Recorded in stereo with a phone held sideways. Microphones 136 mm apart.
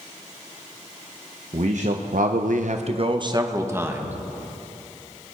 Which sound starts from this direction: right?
A man speaking, at 1.5 s.